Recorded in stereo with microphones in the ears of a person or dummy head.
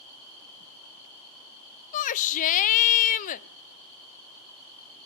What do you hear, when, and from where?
1.9 s a shout: 45° left (ahead or behind), 0.8 m